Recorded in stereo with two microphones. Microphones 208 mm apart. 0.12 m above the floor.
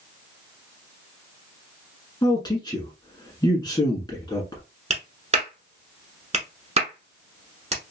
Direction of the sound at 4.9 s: 35° right (ahead or behind).